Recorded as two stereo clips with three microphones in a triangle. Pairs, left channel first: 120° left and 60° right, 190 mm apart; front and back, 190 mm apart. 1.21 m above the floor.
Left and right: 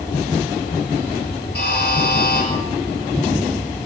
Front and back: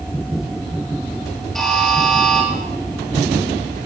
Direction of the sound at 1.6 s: 85° left.